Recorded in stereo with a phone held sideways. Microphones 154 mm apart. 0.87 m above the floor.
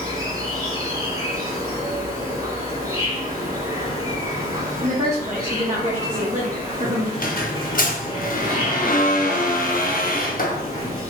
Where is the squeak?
65° left (ahead or behind), 0.8 m.